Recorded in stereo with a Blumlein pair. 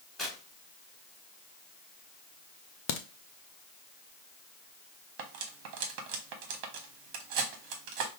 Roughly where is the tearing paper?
Ahead.